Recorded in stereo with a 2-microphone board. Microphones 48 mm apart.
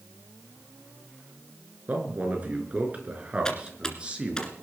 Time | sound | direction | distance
1.9 | a man speaking | 40° right (ahead or behind) | 4.5 m
3.5 | typing on a keyboard | 15° left (ahead or behind) | 2 m